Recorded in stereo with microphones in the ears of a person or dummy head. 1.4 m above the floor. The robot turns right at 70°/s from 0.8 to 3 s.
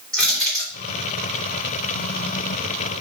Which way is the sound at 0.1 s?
Centre (ahead or behind).